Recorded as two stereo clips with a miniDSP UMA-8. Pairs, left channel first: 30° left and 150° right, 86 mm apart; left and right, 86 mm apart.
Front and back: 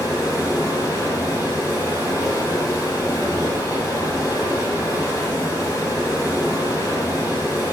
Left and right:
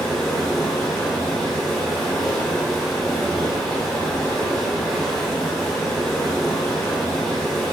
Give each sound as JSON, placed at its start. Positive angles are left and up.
{"t": 0.0, "sound": "running water", "azimuth_deg": 10, "distance_m": 1.9}